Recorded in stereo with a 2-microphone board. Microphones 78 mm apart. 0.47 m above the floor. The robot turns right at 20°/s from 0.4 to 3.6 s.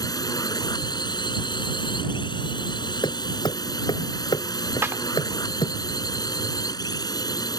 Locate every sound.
0.0 s a drone: 55° left; by 7.6 s 120° left
3.0 s hammering: 80° left
4.8 s a clap: 35° right (ahead or behind)